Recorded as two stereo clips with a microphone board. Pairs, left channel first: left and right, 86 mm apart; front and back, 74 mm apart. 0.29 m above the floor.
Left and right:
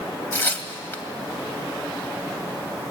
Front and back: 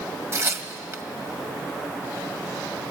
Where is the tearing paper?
145° left, 1.8 m.